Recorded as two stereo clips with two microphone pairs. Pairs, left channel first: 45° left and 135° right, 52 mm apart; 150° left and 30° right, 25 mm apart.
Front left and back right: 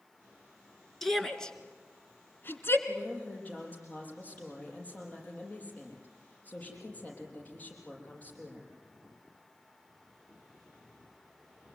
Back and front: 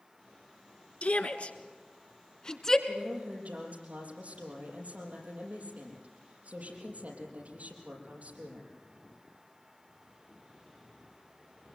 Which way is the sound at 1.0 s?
130° left.